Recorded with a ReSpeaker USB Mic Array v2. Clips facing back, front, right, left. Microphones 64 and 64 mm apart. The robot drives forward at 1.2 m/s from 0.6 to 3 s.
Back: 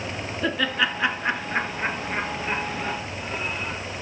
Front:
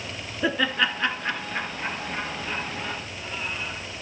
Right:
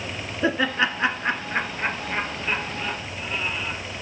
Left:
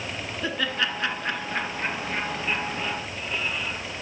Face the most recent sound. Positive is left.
turn(degrees=-165)